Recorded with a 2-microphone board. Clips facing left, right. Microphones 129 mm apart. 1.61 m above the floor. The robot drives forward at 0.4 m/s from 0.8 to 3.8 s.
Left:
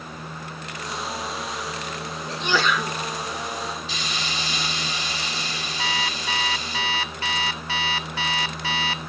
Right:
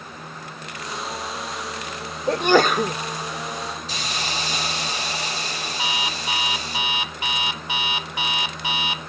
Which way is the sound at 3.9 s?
40° right (ahead or behind).